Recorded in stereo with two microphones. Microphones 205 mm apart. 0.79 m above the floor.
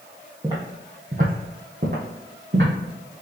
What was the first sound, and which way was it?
Footsteps, 20° right (ahead or behind).